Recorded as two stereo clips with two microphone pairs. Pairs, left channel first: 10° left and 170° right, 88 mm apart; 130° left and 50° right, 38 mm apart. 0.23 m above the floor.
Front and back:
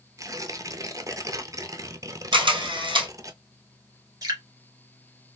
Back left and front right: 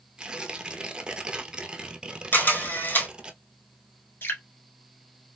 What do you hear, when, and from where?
0.2 s tearing paper: 115° right, 0.7 m
2.3 s a camera shutter: 170° left, 2.5 m
4.2 s dripping: 145° left, 1.6 m